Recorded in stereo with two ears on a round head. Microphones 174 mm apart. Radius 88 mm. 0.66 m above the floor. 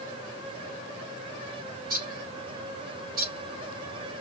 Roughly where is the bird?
Right.